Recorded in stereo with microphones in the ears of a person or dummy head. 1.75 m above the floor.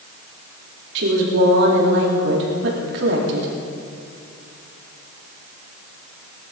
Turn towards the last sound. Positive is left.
turn(degrees=-70)  # may be behind; listen again after turning